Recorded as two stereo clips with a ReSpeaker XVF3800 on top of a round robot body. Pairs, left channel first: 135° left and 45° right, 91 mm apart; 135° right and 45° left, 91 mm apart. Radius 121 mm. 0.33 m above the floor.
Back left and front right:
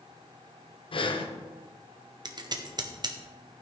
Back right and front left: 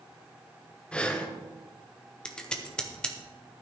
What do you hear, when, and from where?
0.9 s breathing: 145° left, 1.2 m
2.2 s scissors: 60° right, 1.5 m